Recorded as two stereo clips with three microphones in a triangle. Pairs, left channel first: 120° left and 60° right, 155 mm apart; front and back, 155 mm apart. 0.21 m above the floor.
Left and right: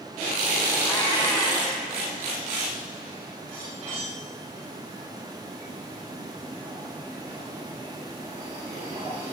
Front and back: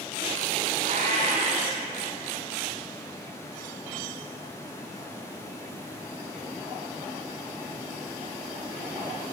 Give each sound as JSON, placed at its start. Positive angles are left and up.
{"t": 0.8, "sound": "a cat meowing", "azimuth_deg": 180, "distance_m": 1.0}